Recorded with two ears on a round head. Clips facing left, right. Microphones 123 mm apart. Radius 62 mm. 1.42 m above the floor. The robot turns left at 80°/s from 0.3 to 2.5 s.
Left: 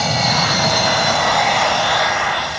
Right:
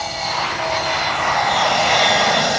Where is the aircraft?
70° left (ahead or behind); by 2.6 s 55° right (ahead or behind).